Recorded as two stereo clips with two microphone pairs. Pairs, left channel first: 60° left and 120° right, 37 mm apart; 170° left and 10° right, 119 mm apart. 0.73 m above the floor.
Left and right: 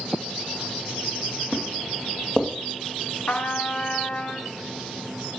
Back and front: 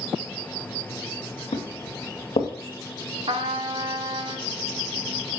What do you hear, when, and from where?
1.5 s footsteps: 150° left, 2.5 m
3.3 s a trumpet: 15° left, 0.9 m